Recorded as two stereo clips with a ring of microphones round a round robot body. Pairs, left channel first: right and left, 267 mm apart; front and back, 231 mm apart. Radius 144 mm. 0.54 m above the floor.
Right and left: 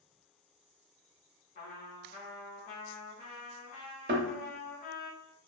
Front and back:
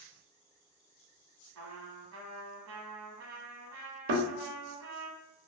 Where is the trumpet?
155° right, 0.8 m.